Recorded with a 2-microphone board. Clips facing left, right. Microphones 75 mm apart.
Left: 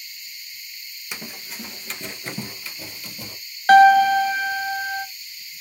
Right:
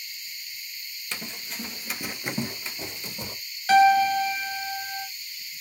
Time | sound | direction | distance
1.1 | running footsteps | 15° left (ahead or behind) | 0.6 m
3.7 | a piano | 55° left (ahead or behind) | 0.6 m